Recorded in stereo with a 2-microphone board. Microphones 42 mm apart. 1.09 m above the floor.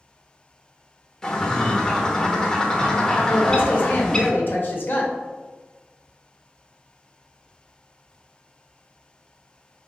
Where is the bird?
20° left (ahead or behind), 0.5 m.